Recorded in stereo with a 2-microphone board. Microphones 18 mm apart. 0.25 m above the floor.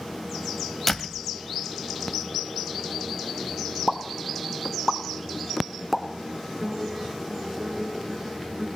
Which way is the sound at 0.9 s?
10° left (ahead or behind).